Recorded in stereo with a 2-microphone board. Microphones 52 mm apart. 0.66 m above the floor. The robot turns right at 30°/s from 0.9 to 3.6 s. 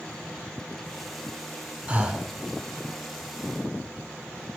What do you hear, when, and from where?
1.9 s breathing: 25° right (ahead or behind), 0.7 m; by 2.3 s 15° right (ahead or behind), 0.7 m